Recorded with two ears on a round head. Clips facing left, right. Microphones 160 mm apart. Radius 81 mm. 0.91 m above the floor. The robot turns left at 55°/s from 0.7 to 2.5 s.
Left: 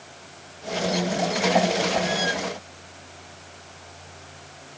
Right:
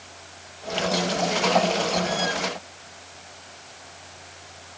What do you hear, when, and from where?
Only background noise.